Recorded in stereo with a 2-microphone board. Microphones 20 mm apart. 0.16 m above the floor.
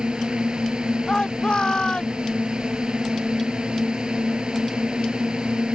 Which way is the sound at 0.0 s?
55° right (ahead or behind).